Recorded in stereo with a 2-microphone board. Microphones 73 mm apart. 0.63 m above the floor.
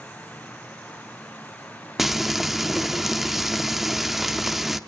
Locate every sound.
2.0 s frying: 5° right (ahead or behind), 0.8 m